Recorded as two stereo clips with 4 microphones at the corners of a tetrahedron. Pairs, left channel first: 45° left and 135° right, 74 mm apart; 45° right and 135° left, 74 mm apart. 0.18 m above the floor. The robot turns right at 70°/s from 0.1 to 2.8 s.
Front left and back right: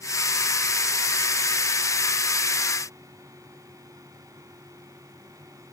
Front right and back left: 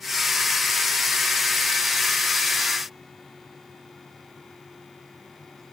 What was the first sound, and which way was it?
Only background noise.